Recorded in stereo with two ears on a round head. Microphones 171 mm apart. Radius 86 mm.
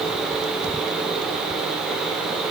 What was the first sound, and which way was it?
Only background noise.